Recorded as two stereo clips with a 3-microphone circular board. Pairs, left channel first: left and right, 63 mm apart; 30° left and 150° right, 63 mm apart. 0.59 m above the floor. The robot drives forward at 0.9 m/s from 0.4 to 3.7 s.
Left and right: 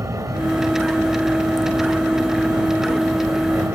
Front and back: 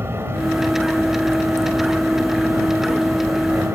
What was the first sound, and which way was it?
An aircraft, 110° right.